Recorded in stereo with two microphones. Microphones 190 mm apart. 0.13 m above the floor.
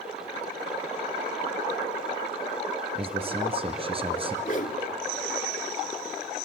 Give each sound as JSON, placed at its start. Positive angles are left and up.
{"t": 3.0, "sound": "a man speaking", "side_deg": -30, "distance_m": 1.6}
{"t": 4.5, "sound": "a whoosh", "side_deg": 45, "distance_m": 0.9}